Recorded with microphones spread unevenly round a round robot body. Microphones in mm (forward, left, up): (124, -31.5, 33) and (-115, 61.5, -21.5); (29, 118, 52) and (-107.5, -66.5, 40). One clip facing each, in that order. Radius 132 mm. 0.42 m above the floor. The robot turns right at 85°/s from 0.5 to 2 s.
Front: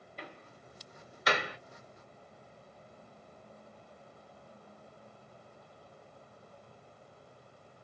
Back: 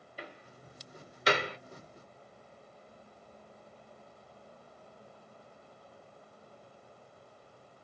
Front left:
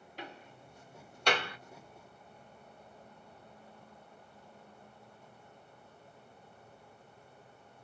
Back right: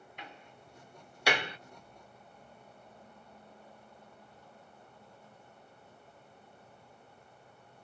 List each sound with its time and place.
0.2 s a door slam: 95° left, 1.0 m; by 1.6 s 175° right, 1.0 m